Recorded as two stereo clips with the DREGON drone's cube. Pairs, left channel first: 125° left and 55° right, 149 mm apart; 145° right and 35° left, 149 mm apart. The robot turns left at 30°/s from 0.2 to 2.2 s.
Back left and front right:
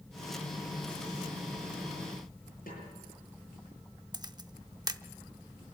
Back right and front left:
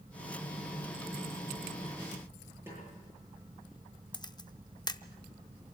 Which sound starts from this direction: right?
A camera shutter, at 4.1 s.